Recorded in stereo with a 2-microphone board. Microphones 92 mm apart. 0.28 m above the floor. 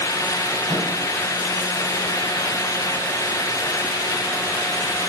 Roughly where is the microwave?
Right.